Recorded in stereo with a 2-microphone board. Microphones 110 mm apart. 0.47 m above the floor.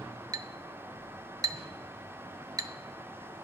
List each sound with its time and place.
0.3 s a clink: 35° right (ahead or behind), 0.6 m